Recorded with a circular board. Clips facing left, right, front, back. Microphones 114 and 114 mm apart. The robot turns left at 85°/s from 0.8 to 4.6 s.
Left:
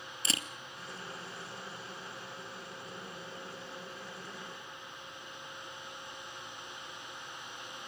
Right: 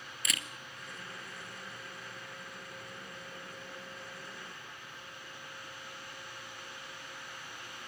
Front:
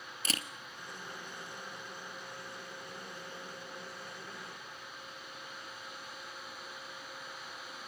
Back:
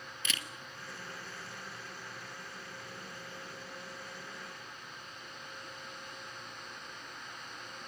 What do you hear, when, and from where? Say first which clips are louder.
0.2 s a camera shutter: left 3 dB, front 3 dB; 40° left, 1.1 m